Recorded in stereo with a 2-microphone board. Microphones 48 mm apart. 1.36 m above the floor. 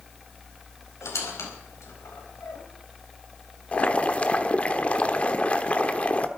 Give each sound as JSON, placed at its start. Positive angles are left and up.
{"t": 1.0, "sound": "a squeak", "side_deg": 75, "distance_m": 4.5}
{"t": 3.7, "sound": "boiling", "side_deg": 30, "distance_m": 1.1}